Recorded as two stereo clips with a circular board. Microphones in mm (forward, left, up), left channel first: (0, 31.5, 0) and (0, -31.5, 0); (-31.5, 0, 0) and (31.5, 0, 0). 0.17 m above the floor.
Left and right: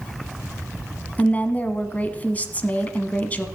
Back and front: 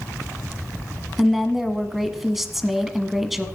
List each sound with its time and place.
1.2 s a woman speaking: 85° left, 1.0 m